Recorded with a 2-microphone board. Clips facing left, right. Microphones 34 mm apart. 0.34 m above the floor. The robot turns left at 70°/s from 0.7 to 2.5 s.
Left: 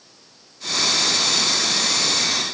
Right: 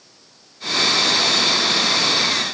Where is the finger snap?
I don't hear a finger snap.